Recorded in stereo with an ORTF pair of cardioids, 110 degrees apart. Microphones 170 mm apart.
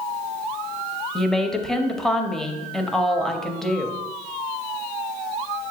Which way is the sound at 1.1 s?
5° left.